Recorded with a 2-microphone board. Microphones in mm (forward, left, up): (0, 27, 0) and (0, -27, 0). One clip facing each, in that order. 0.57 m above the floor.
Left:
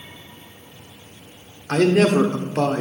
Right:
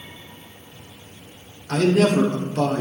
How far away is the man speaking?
About 1.3 m.